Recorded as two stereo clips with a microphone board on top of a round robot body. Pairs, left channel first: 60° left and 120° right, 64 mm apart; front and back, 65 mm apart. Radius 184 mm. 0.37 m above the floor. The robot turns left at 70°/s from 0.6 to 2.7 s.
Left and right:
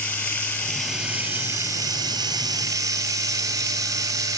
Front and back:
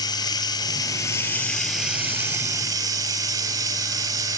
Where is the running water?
10° right, 0.9 m; by 4.4 s 160° right, 0.9 m.